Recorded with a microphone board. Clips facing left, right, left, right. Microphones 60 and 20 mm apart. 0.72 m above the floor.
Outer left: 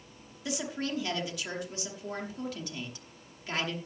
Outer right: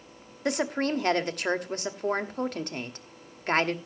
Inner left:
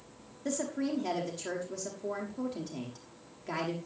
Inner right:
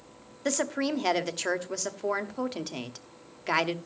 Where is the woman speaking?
50° right (ahead or behind), 1.2 m.